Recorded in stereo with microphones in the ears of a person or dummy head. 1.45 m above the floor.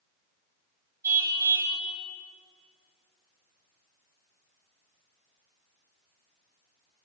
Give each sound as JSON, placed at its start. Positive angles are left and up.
{"t": 1.0, "sound": "a car horn", "side_deg": -15, "distance_m": 5.5}